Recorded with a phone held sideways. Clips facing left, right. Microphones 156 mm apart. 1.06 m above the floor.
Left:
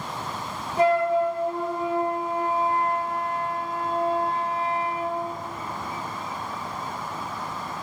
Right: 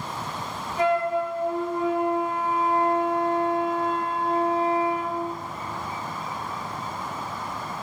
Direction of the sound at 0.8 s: 35° left (ahead or behind).